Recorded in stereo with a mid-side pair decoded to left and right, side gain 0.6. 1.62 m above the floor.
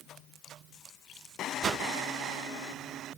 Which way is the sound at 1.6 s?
40° right.